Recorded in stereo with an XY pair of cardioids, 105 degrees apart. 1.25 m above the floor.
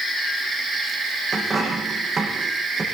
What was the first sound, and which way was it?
A dropped coin, 35° right.